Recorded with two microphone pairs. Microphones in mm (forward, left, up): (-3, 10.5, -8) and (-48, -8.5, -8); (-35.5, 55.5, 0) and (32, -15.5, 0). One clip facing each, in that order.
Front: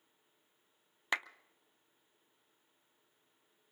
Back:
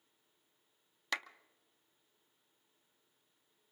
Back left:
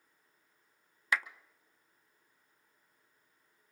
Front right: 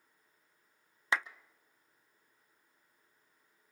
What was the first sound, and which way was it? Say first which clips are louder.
A clap: front 3 dB, even; 20° right.